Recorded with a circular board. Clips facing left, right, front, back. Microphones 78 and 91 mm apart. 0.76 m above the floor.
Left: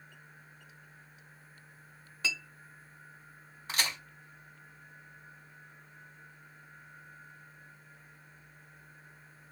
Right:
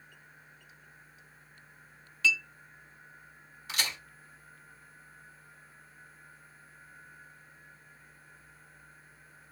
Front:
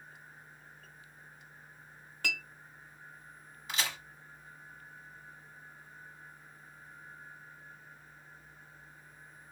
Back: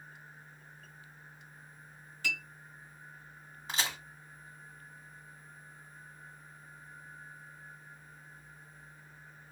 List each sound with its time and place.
2.2 s a clink: 30° left, 0.9 m
3.7 s a crack: 130° left, 1.8 m